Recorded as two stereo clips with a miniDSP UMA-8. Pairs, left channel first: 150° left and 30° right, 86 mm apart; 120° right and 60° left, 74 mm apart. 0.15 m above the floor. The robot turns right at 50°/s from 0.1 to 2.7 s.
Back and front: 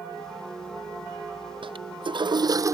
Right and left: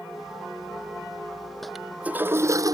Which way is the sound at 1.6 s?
35° right.